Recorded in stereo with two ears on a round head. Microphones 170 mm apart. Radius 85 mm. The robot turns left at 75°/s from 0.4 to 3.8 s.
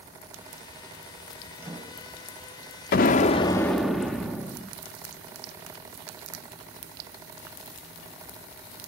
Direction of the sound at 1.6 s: Straight ahead.